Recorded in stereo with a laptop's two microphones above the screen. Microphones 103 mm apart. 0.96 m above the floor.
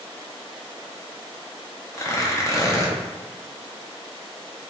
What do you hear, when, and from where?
1.9 s tearing paper: 30° left (ahead or behind), 0.7 m